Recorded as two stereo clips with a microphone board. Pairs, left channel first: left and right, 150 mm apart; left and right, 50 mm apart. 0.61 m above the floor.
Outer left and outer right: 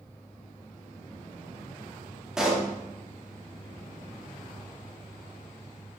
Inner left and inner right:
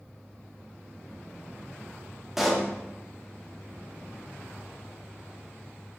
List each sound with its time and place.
2.4 s a pop: 5° right (ahead or behind), 0.6 m